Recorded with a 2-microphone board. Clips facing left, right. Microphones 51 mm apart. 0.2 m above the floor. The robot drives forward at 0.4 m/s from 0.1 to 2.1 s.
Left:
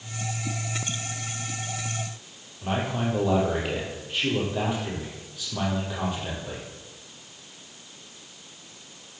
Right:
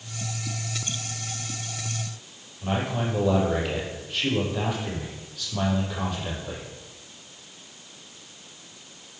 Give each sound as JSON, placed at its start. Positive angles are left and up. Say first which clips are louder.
{"t": 2.6, "sound": "a man speaking", "louder": "even", "side_deg": 10, "distance_m": 5.5}